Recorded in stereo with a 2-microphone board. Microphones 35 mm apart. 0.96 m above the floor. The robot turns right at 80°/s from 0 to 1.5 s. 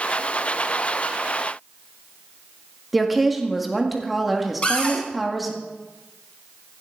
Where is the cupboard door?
35° left (ahead or behind), 1.9 m.